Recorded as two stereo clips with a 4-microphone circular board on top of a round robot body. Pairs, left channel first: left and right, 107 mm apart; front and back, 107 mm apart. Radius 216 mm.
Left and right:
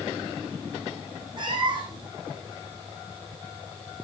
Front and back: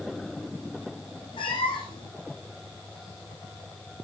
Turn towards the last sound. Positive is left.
turn(degrees=-45)